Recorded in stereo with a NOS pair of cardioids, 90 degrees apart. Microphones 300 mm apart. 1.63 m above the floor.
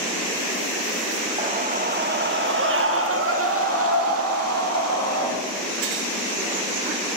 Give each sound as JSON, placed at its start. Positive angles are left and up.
{"t": 1.4, "sound": "a scream", "azimuth_deg": -20, "distance_m": 1.2}